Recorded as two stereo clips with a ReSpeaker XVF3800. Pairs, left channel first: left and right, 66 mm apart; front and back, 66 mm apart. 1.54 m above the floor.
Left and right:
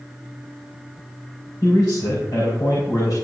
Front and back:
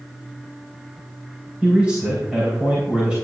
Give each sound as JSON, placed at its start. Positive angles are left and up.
{"t": 1.6, "sound": "a man speaking", "azimuth_deg": 105, "distance_m": 4.0}